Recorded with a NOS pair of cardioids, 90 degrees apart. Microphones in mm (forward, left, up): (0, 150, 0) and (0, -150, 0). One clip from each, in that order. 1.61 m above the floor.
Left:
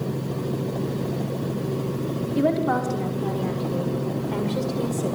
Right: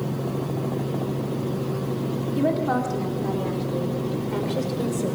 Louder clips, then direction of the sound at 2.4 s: Left 1 dB; 15° left.